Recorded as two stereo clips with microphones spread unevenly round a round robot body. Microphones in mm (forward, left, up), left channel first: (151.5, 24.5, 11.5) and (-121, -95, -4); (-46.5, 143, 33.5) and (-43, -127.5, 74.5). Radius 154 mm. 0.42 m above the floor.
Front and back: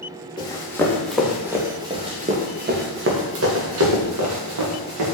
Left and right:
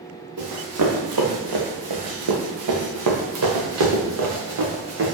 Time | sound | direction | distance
0.4 | running footsteps | 50° right | 2.5 m